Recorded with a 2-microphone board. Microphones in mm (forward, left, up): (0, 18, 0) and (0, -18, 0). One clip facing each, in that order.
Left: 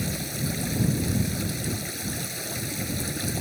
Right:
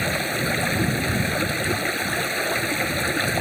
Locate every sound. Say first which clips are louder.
0.0 s running water: right 8 dB; 45° right (ahead or behind)